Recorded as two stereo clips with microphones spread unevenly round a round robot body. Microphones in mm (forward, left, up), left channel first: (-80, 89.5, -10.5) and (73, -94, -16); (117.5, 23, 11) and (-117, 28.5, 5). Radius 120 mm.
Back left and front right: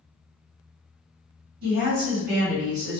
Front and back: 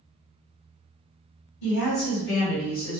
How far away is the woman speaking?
About 1.7 m.